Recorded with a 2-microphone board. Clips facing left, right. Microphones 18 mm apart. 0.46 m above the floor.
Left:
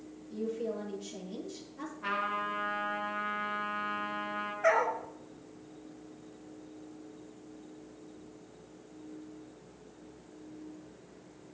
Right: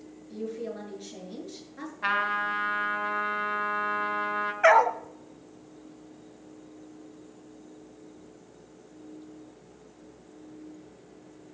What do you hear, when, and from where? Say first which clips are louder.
0.3 s a woman speaking: even; 45° right (ahead or behind), 8 m
2.0 s a trumpet: right 7 dB; 60° right (ahead or behind), 3.5 m
4.6 s a dog barking: right 8 dB; 85° right, 1.0 m